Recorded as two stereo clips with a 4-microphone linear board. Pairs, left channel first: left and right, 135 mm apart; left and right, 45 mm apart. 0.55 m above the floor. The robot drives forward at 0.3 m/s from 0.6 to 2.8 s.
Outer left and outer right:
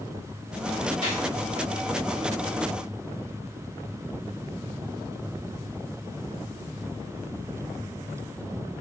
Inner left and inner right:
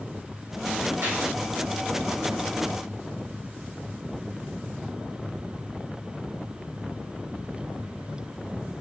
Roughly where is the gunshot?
Right.